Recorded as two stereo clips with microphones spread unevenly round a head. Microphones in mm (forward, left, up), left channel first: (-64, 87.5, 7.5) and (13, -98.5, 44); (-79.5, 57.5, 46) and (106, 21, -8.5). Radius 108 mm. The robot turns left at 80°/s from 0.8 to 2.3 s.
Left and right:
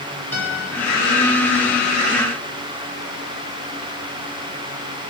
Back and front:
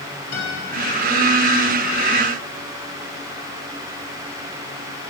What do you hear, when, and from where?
0.3 s a guitar: 165° right, 7 m